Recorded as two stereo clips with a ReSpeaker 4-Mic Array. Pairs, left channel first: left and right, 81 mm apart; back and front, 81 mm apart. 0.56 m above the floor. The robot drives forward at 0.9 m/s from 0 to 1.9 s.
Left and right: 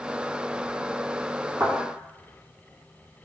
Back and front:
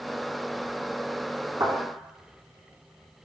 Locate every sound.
1.6 s a thud: 30° right, 1.6 m; by 1.8 s 35° right, 1.5 m